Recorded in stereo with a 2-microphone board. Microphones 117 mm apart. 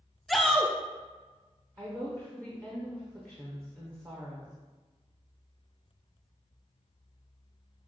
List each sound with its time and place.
0.3 s a shout: centre (ahead or behind), 0.5 m
1.8 s a woman speaking: 25° right (ahead or behind), 0.9 m